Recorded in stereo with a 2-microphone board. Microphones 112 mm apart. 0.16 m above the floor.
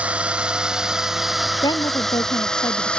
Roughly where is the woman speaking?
Left.